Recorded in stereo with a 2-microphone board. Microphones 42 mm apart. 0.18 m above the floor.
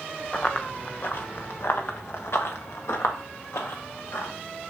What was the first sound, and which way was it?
Running footsteps, 30° left (ahead or behind).